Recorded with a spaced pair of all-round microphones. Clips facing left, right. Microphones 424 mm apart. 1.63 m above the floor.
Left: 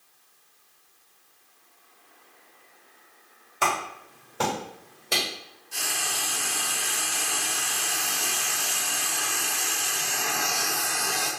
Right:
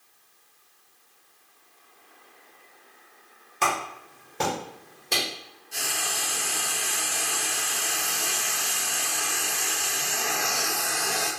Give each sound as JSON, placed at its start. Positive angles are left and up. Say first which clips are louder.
{"t": 3.6, "sound": "a clap", "louder": "even", "side_deg": -15, "distance_m": 1.9}
{"t": 5.7, "sound": "frying", "louder": "right 1 dB", "side_deg": 20, "distance_m": 1.0}